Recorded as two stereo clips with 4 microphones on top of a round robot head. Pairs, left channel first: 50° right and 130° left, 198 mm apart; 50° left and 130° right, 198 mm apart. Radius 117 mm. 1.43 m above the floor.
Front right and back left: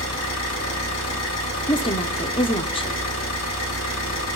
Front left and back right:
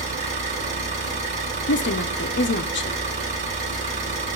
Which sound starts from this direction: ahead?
A woman speaking, at 1.7 s.